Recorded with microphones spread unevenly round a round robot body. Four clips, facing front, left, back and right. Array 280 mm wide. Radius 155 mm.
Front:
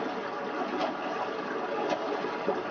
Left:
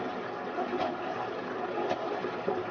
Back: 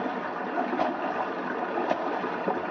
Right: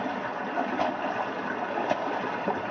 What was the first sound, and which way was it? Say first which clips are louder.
Running water: right 4 dB, back 2 dB; 125° right.